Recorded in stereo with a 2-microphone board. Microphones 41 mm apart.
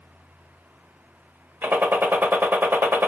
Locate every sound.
1.6 s a gunshot: 60° right (ahead or behind), 0.9 m